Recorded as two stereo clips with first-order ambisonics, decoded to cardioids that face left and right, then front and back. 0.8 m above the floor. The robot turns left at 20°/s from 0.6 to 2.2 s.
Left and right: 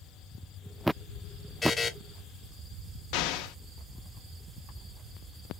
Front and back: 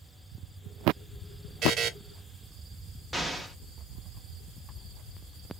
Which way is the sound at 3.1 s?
90° left.